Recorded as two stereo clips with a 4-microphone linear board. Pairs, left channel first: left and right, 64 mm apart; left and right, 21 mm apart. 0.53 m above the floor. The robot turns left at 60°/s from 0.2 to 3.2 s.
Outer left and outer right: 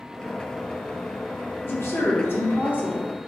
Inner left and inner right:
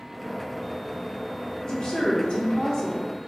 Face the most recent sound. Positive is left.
turn(degrees=20)